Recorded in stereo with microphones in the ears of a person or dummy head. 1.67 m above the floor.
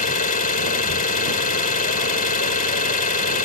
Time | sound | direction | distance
0.0 | an engine running | 40° left (ahead or behind) | ?